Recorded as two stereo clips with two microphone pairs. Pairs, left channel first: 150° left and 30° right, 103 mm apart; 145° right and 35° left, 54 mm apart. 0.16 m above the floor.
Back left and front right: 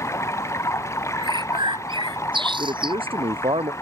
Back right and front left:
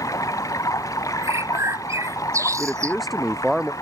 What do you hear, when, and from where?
0.0 s running water: 145° right
1.2 s a bird: 10° left
2.6 s a man speaking: 55° right